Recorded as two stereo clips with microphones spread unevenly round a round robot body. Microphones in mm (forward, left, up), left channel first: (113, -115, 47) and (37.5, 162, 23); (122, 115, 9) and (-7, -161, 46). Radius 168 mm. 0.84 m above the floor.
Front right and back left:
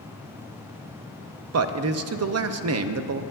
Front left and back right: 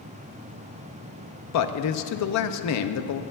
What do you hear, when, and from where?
1.5 s a man speaking: 80° left, 0.6 m